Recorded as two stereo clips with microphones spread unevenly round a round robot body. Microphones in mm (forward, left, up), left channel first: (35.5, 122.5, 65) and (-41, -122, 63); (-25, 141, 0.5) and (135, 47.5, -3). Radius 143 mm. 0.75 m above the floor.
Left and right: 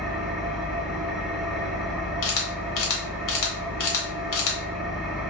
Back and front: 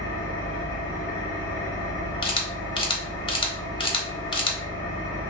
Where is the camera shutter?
85° left, 1.1 m.